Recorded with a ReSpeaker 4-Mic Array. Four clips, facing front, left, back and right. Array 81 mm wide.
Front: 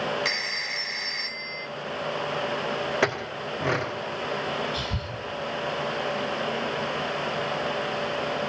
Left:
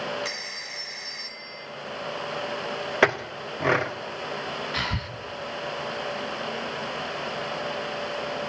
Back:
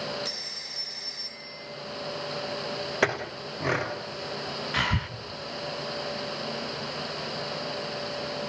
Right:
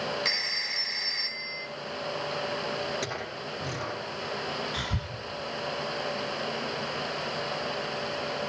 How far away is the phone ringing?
About 1.5 m.